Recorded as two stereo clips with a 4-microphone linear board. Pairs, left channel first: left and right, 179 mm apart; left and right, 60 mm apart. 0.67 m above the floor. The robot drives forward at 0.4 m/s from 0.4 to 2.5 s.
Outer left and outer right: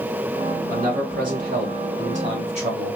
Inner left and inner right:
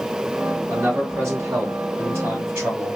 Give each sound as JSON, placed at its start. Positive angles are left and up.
{"t": 0.7, "sound": "a man speaking", "side_deg": -55, "distance_m": 1.8}